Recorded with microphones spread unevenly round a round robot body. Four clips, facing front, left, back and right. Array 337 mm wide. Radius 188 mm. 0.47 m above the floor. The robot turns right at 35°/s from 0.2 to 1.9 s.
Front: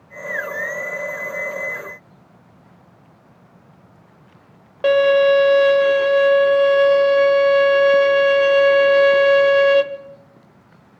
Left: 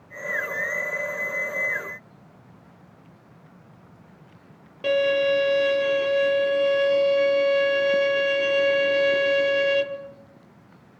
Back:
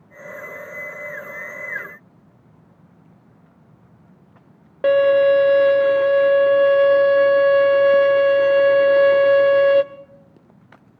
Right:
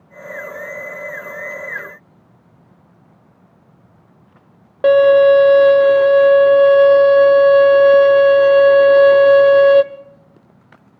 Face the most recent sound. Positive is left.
turn(degrees=-85)